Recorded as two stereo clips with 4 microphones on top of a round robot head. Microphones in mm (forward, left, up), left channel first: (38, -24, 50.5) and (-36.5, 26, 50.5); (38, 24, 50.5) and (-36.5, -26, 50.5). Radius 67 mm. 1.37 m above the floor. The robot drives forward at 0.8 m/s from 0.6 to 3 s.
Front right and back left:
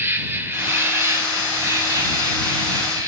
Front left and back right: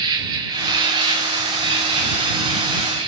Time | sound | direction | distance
0.0 | an insect | 155° right | 1.9 m